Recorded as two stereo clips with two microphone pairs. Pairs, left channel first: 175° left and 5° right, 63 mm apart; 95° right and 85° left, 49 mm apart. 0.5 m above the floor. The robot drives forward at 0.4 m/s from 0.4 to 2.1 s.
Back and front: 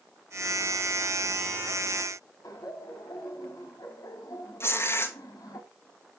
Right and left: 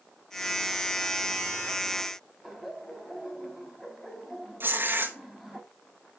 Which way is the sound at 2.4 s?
170° left.